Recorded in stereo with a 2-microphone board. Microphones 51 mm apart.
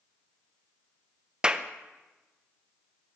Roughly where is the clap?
Centre.